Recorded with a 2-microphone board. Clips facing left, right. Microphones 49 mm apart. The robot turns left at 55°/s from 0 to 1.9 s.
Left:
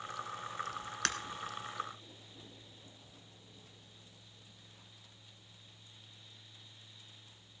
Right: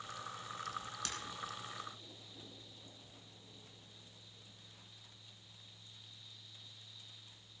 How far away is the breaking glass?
About 1.1 m.